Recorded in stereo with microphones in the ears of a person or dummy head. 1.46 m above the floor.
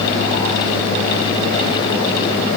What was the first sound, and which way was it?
Only background noise.